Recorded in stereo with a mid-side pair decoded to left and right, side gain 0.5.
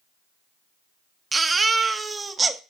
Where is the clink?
No clink in this recording.